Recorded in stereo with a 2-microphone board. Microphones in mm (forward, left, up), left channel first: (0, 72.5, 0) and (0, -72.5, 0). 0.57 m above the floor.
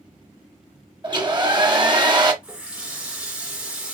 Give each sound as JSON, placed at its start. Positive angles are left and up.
{"t": 1.0, "sound": "a hair dryer", "side_deg": -30, "distance_m": 0.8}
{"t": 2.4, "sound": "a running tap", "side_deg": -5, "distance_m": 0.8}